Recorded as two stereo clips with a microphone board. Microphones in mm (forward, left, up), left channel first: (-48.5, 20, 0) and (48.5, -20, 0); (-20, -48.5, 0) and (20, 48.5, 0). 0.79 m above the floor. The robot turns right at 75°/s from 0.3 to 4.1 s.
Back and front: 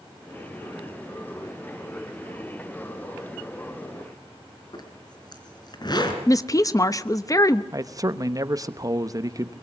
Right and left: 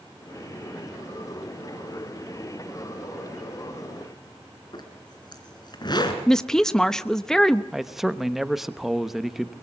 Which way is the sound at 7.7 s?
20° right.